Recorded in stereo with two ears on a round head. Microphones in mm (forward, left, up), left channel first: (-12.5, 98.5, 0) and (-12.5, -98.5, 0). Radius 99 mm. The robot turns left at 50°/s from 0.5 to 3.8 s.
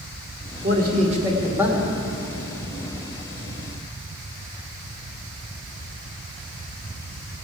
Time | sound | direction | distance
0.6 | a man speaking | 120° right | 2 m